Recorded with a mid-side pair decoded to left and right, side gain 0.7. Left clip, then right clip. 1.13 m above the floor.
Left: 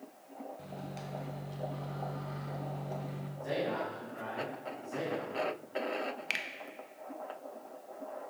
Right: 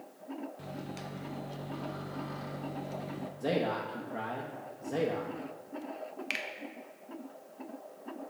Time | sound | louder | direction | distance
0.6 | a microwave | right 2 dB | 20° right | 0.6 m
3.4 | a man speaking | right 2 dB | 60° right | 1.1 m
6.3 | a finger snap | even | 5° left | 0.6 m